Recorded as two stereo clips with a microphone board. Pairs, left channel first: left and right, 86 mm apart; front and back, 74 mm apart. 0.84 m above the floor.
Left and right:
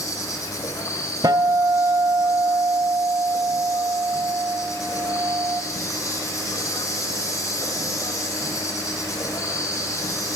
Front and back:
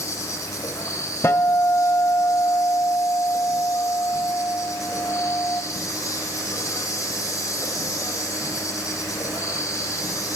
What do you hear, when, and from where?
0.0 s an insect: 40° left, 5.5 m
1.2 s a guitar: 55° right, 1.7 m